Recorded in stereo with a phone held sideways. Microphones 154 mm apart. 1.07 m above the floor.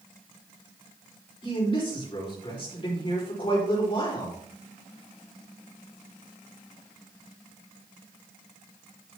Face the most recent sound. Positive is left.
turn(degrees=35)  # may be behind; listen again after turning